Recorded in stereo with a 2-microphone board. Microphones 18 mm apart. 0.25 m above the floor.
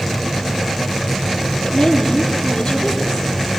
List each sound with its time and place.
1.6 s a woman speaking: 40° left (ahead or behind), 7 m